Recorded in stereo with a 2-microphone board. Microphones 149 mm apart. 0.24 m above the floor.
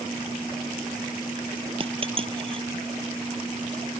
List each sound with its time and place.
1.8 s a dropped coin: 40° right (ahead or behind)